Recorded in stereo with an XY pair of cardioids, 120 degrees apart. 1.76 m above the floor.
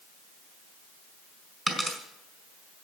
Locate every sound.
1.7 s a dropped coin: 10° right, 5 m